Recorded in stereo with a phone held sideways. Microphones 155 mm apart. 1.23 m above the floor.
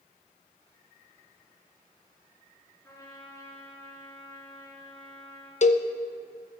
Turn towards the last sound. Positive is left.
turn(degrees=50)  # may be behind; listen again after turning